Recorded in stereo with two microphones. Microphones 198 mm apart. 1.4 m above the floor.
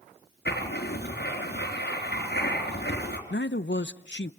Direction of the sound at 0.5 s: 65° left (ahead or behind).